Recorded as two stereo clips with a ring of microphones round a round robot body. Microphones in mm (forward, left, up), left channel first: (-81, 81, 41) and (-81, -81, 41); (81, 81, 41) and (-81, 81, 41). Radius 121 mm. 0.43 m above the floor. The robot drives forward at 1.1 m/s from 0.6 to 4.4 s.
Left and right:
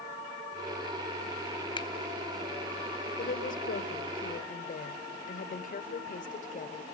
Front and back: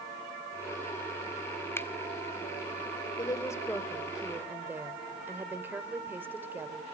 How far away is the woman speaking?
About 2 m.